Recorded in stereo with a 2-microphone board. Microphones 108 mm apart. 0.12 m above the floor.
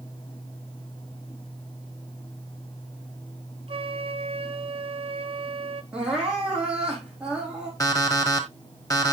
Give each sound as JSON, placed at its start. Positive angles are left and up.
{"t": 3.7, "sound": "a flute", "side_deg": -60, "distance_m": 1.0}
{"t": 5.9, "sound": "crying", "side_deg": -10, "distance_m": 4.5}
{"t": 7.8, "sound": "an alarm clock", "side_deg": 35, "distance_m": 1.9}